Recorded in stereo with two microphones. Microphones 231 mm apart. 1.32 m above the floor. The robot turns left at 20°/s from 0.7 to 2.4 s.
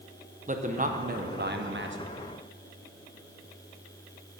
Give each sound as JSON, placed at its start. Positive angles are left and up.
{"t": 0.5, "sound": "a man speaking", "side_deg": -35, "distance_m": 1.1}